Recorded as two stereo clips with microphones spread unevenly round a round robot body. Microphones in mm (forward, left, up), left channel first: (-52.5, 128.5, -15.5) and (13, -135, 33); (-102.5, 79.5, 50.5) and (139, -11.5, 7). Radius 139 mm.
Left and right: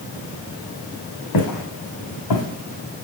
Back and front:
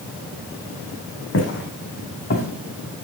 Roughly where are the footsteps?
Behind left.